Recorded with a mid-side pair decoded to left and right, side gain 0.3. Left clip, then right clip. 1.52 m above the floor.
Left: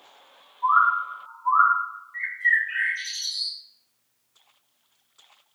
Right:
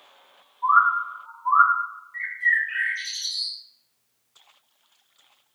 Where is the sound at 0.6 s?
15° right, 1.6 m.